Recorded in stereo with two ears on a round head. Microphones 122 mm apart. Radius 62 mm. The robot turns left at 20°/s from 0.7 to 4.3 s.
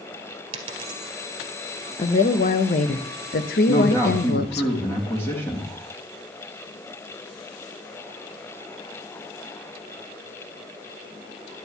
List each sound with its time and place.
0.5 s a dropped coin: 40° right (ahead or behind), 1.9 m; by 1.1 s 30° right (ahead or behind), 1.9 m
2.0 s a woman speaking: 135° left, 0.8 m; by 4.7 s 90° left, 0.8 m
3.7 s a man speaking: 30° left (ahead or behind), 2 m; by 5.7 s 15° left (ahead or behind), 2 m